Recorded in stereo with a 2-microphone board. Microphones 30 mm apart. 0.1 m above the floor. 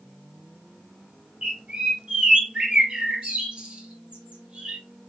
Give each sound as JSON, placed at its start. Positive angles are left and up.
{"t": 1.4, "sound": "a bird", "side_deg": -35, "distance_m": 1.7}